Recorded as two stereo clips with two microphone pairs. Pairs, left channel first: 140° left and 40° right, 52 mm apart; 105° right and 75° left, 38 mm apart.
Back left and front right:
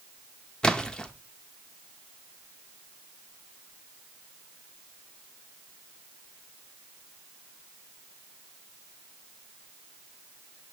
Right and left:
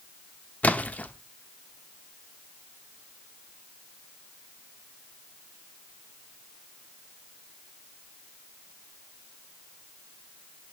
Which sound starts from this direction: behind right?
A splash, at 0.6 s.